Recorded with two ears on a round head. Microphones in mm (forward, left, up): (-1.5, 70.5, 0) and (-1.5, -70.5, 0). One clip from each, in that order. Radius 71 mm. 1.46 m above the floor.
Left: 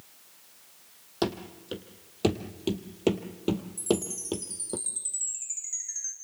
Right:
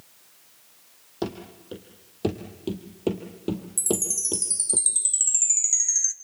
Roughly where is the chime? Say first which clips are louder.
Right 5 dB; right.